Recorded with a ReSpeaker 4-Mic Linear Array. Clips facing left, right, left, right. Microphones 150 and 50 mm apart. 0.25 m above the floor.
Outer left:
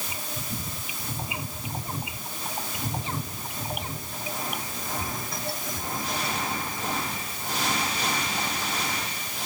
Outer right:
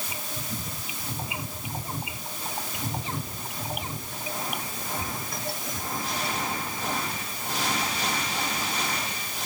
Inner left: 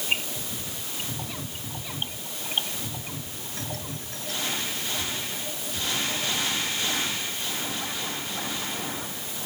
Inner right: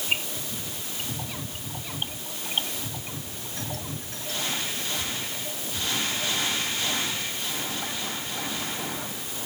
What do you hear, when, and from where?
Only background noise.